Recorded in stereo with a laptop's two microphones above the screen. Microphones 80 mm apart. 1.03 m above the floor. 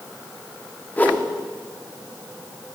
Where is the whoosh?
20° left (ahead or behind), 1.0 m.